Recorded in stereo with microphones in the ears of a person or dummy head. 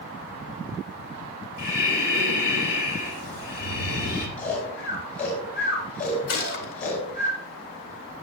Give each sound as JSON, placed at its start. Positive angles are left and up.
{"t": 1.6, "sound": "breathing", "side_deg": 60, "distance_m": 3.0}
{"t": 4.4, "sound": "snoring", "side_deg": 45, "distance_m": 6.5}
{"t": 6.3, "sound": "a gunshot", "side_deg": 60, "distance_m": 2.5}